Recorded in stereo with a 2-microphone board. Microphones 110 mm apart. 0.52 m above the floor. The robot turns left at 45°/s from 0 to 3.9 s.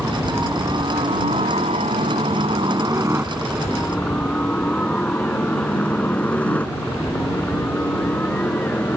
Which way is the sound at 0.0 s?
10° right (ahead or behind).